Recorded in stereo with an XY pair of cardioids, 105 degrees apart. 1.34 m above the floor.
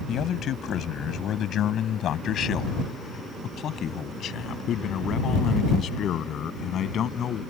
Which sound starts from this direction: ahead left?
A man speaking, at 0.1 s.